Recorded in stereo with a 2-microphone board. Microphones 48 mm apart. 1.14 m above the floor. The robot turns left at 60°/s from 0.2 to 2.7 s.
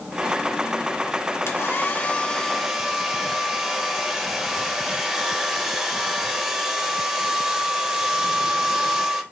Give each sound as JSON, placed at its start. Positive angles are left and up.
{"t": 1.5, "sound": "a hair dryer", "azimuth_deg": 70, "distance_m": 0.7}